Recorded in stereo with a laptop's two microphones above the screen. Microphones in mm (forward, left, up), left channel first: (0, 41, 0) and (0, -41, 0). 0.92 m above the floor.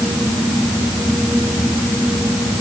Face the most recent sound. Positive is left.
No sound to turn to.